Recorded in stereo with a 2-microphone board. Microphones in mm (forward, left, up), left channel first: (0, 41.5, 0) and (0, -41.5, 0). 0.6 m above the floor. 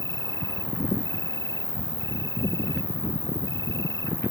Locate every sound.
0.0 s an insect: 65° right (ahead or behind)